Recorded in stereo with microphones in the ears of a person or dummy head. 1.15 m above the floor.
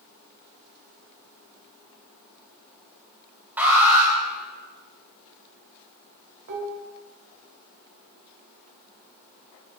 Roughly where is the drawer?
I don't hear a drawer.